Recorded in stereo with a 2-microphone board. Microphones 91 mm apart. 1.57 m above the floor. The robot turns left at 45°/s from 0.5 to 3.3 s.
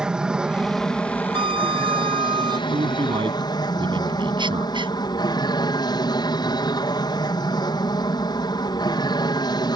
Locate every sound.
0.0 s an aircraft: 170° right; by 9.8 s 65° left
1.3 s a violin: 70° right; by 2.6 s 125° right
2.7 s a man speaking: 90° right; by 4.9 s 65° right (ahead or behind)